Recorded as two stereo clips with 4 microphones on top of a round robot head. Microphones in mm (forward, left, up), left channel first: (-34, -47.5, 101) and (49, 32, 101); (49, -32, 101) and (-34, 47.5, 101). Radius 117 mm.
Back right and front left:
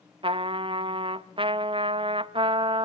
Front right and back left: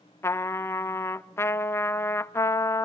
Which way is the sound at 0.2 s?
20° left.